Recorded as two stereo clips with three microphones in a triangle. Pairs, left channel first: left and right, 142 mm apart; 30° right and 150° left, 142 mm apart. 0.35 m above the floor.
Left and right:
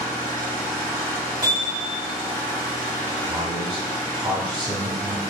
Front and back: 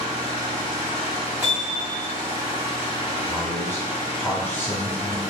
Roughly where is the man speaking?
Right.